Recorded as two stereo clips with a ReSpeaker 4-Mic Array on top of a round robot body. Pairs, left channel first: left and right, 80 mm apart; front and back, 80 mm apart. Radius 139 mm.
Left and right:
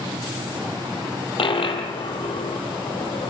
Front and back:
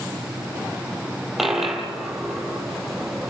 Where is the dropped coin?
90° left, 4 m.